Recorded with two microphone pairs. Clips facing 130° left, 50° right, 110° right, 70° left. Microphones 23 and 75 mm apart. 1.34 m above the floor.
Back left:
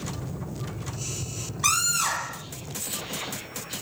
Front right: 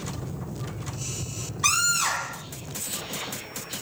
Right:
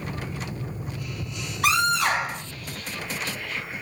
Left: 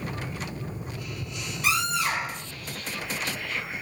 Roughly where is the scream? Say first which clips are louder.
Front right 1 dB, right 5 dB; behind right.